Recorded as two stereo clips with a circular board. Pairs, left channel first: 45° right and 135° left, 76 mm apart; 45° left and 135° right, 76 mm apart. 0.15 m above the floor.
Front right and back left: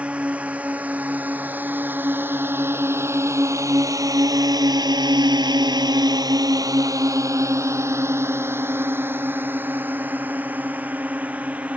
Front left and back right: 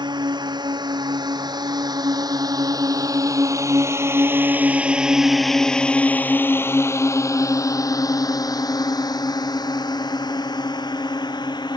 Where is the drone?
150° right; by 11.8 s 65° left.